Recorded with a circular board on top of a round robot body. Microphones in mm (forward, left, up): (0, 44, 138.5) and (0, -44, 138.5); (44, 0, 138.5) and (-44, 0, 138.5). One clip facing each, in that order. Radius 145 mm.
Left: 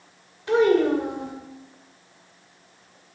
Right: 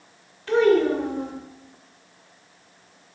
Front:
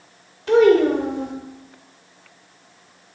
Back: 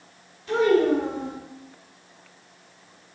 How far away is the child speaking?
About 2.5 m.